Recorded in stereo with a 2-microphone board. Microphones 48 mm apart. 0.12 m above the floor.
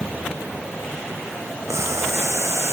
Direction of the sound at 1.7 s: 80° right.